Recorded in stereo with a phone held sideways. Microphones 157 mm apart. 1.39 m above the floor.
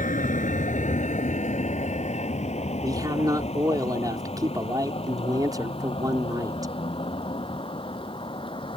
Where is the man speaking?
25° right (ahead or behind).